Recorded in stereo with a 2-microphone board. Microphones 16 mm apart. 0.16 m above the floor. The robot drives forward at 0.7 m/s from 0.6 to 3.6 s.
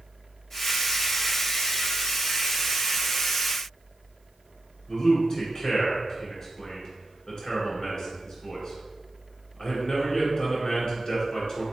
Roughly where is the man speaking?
Left.